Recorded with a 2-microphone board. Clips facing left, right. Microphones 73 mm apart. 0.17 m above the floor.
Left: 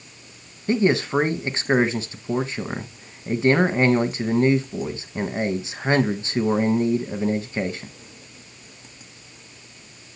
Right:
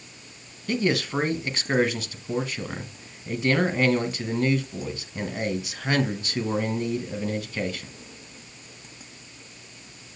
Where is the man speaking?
30° left (ahead or behind), 1.1 m.